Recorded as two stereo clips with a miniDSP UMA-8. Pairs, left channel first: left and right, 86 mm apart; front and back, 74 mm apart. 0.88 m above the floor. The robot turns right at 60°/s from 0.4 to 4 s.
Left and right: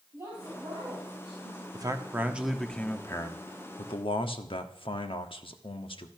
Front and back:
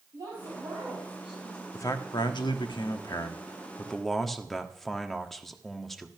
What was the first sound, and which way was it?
A woman speaking, 150° right.